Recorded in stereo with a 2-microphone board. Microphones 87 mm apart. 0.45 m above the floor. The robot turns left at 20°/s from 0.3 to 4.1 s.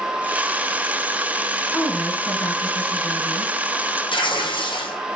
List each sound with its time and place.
1.7 s a woman speaking: 155° left, 4.5 m; by 3.5 s 115° left, 4.5 m
4.1 s tearing paper: 70° left (ahead or behind), 3 m